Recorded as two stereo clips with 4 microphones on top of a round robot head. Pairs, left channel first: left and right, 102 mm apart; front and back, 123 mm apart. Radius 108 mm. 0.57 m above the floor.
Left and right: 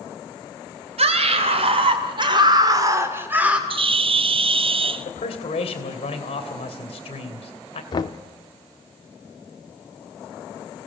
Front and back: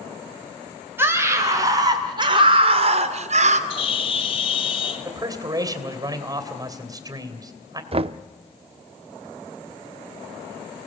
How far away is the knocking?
About 0.7 m.